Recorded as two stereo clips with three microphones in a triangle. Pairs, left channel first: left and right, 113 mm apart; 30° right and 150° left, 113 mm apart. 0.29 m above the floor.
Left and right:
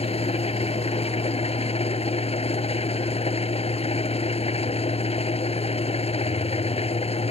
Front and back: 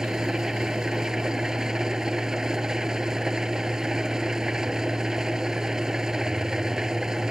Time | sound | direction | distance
0.0 | an engine running | 65° left | ?